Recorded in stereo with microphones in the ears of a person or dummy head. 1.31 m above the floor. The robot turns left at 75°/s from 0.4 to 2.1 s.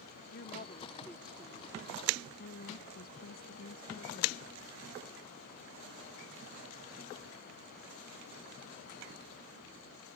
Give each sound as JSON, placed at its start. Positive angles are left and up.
{"t": 0.3, "sound": "a woman speaking", "azimuth_deg": 60}
{"t": 2.4, "sound": "a woman speaking", "side_deg": 55}